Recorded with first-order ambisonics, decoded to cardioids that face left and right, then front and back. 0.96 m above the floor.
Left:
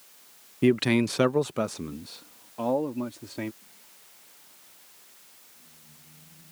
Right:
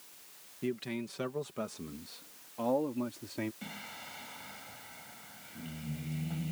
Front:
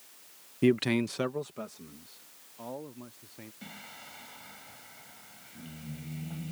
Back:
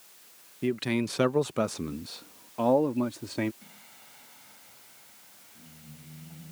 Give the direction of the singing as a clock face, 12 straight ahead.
2 o'clock.